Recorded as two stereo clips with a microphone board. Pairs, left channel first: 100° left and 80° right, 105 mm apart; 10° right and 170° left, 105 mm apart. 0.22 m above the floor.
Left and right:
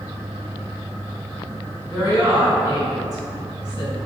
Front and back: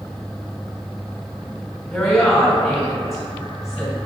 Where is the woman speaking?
105° right, 1.9 m.